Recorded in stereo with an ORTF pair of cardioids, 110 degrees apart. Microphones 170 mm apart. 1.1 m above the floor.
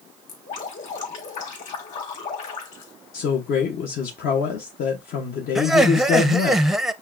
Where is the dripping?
50° left, 2 m.